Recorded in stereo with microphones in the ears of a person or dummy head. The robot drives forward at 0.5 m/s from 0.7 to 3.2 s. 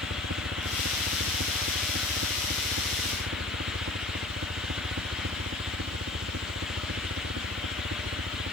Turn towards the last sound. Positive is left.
turn(degrees=-50)  # may be behind; listen again after turning